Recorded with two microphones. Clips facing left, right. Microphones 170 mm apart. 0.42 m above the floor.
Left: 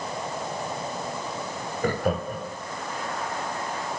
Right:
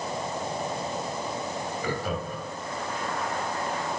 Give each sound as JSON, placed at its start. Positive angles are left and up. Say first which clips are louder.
{"t": 1.8, "sound": "laughter", "louder": "left 8 dB", "side_deg": 55, "distance_m": 3.0}